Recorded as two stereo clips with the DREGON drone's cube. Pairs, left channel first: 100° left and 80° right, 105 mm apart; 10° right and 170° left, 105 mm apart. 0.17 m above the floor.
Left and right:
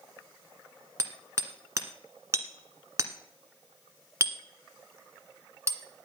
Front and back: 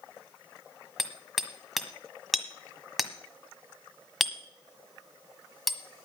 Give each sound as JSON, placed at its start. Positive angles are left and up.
{"t": 1.0, "sound": "hammering", "azimuth_deg": -100, "distance_m": 1.4}